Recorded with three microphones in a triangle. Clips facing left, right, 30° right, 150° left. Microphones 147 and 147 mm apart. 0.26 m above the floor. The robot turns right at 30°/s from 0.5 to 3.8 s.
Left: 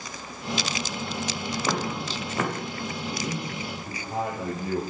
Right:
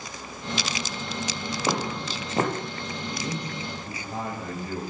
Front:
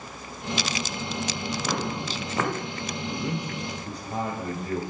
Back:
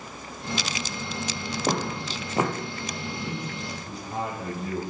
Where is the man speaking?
Straight ahead, 5.5 m; by 4.8 s 20° left, 5.5 m.